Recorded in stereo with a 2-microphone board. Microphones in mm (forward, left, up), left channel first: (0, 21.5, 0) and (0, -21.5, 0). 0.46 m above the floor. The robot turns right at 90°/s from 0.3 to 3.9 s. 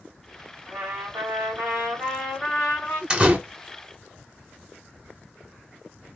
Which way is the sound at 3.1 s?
20° right (ahead or behind).